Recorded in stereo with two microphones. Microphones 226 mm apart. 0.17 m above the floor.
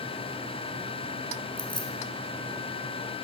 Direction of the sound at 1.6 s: 20° left (ahead or behind).